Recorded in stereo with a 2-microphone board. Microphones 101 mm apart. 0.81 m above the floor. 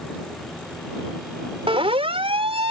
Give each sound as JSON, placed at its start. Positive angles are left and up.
{"t": 1.7, "sound": "a siren", "side_deg": -70}